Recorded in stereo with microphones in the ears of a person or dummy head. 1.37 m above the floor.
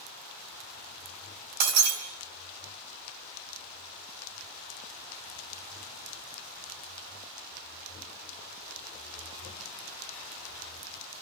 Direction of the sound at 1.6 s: 50° right (ahead or behind).